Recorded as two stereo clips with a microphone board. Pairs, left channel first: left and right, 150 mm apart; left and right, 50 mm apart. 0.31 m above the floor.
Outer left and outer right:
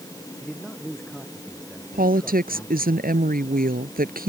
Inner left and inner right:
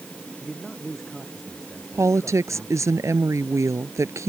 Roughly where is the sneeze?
No sneeze in this recording.